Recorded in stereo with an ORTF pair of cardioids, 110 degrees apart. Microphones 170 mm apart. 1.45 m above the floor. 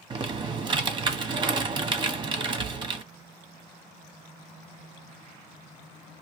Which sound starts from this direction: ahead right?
Typing on a keyboard, at 0.1 s.